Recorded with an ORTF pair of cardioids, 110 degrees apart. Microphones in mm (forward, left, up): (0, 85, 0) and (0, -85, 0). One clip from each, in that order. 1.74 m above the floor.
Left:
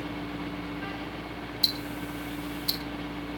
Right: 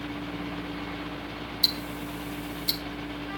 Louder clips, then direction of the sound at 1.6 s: Right 1 dB; 5° right.